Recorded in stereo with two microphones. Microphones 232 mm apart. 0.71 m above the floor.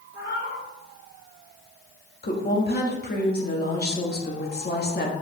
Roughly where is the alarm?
I don't hear an alarm.